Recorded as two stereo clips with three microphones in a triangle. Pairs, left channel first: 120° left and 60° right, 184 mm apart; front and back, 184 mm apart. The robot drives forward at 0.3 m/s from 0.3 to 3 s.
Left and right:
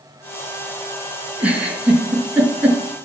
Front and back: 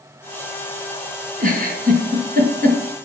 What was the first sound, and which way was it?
A giggle, 140° right.